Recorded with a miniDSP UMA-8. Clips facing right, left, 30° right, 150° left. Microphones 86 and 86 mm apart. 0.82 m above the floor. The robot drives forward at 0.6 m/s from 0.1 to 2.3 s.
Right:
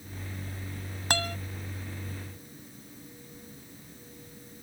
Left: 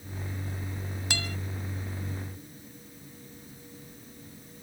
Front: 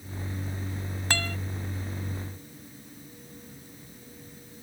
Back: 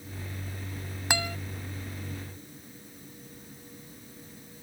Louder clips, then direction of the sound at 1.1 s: Right 7 dB, back 1 dB; 135° right.